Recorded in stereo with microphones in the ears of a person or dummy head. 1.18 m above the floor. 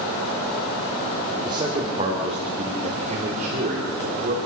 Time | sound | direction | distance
1.4 | a man speaking | 25° right (ahead or behind) | 3 m